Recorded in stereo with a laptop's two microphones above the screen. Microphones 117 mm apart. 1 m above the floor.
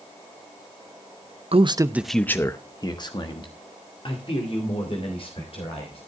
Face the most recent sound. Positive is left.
turn(degrees=55)  # may be behind; listen again after turning